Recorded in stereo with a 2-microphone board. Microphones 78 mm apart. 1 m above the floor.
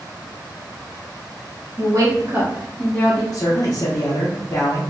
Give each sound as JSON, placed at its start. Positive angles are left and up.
{"t": 1.8, "sound": "a woman speaking", "side_deg": -55, "distance_m": 1.2}
{"t": 3.3, "sound": "a man speaking", "side_deg": 45, "distance_m": 0.8}